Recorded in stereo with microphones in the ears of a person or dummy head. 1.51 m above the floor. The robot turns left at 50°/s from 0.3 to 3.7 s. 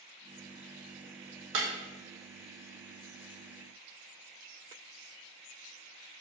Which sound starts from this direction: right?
Breaking glass, at 1.5 s.